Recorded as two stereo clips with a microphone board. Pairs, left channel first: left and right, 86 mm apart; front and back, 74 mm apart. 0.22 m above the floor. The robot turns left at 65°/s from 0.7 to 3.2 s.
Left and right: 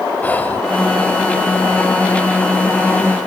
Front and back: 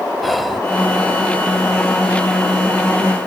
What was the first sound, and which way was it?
Whispering, 90° left.